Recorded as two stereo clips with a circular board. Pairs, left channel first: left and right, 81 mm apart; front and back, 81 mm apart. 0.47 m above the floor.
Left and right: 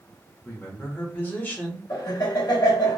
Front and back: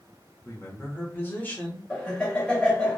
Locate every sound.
0.5 s a man speaking: 40° left, 1.7 m; by 1.8 s 50° left, 1.2 m
1.9 s laughter: 75° left, 2.5 m